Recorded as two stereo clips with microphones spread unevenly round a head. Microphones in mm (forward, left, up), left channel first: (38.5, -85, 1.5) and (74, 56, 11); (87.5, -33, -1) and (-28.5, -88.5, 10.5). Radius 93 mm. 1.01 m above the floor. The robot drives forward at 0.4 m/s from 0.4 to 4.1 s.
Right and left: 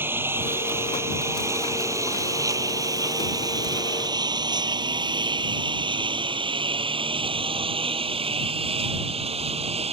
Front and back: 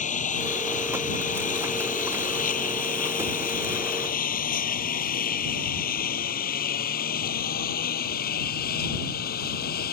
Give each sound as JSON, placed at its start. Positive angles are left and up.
{"t": 0.0, "sound": "a lawn mower", "azimuth_deg": 0}